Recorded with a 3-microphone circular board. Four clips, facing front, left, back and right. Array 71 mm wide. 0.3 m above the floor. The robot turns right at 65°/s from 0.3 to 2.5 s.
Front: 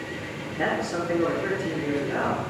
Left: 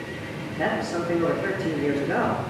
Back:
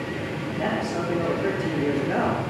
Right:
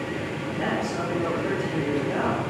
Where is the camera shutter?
No camera shutter in this recording.